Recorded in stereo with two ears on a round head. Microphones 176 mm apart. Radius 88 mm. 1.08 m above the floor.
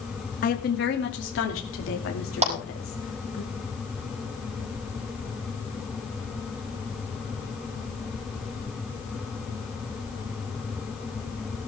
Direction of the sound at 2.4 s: 35° right (ahead or behind).